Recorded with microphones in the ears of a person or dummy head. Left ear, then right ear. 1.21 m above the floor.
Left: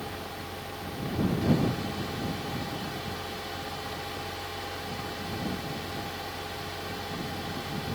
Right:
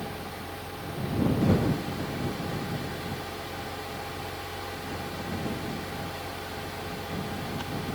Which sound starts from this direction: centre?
A fan, at 0.0 s.